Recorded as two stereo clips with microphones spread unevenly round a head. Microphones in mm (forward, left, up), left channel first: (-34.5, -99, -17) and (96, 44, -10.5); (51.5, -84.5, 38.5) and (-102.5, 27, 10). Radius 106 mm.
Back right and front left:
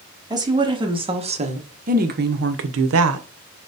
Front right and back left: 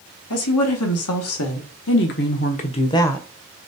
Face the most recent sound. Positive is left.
turn(degrees=50)